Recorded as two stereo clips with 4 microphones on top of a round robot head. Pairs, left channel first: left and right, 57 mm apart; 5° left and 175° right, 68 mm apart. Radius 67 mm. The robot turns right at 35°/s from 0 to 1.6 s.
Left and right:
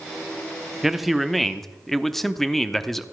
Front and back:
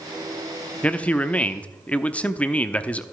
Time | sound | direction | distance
0.8 | a man speaking | 15° right | 0.8 m